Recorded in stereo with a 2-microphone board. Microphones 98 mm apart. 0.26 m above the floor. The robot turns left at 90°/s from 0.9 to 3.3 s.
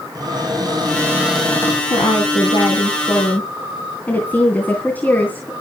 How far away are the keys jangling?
I don't hear keys jangling.